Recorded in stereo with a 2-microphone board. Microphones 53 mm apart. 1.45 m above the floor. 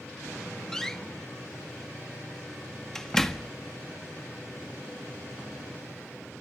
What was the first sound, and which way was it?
A door slam, 10° left (ahead or behind).